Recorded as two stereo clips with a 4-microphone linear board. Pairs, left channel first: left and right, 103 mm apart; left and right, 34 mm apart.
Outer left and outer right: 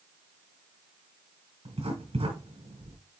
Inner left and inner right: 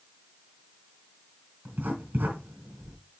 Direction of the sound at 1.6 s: 85° right.